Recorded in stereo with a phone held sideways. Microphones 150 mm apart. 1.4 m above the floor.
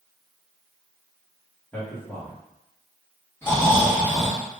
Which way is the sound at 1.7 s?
10° left (ahead or behind).